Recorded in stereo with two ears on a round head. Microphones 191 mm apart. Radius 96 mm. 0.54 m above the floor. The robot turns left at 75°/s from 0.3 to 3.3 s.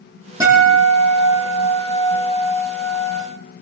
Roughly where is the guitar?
Ahead.